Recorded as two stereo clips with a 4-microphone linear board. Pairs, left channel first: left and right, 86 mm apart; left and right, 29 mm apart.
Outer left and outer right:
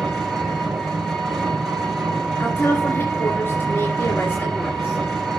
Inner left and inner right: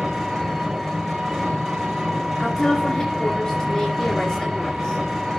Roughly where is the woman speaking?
Left.